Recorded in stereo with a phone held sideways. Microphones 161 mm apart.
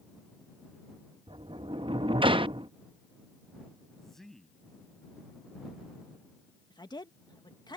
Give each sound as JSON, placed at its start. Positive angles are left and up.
{"t": 1.3, "sound": "a sliding door", "side_deg": -30}
{"t": 4.0, "sound": "a man speaking", "side_deg": 0}
{"t": 6.7, "sound": "a woman speaking", "side_deg": 25}